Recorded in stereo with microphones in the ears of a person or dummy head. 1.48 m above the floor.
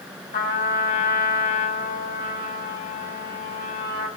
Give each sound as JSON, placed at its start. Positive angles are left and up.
{"t": 0.3, "sound": "a trumpet", "side_deg": 65, "distance_m": 5.0}